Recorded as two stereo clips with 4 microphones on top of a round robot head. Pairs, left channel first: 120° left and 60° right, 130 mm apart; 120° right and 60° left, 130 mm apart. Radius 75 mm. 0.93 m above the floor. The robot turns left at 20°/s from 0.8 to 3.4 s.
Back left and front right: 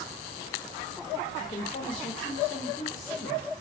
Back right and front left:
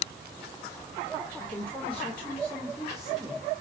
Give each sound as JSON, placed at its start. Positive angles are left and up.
{"t": 1.4, "sound": "a woman speaking", "azimuth_deg": 175, "distance_m": 1.3}